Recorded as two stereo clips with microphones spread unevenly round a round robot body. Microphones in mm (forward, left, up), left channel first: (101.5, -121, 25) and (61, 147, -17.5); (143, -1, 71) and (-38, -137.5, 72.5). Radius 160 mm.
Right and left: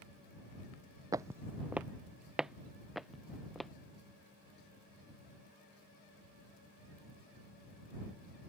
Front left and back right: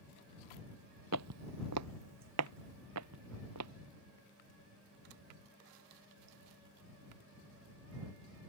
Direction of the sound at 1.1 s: Straight behind.